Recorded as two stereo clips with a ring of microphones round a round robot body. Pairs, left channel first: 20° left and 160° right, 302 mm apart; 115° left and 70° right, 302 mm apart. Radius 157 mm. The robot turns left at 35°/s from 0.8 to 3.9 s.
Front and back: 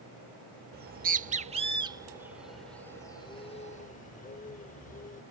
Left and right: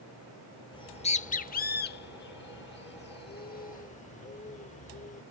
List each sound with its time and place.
0.7 s a bird: 175° left; by 5.2 s 65° left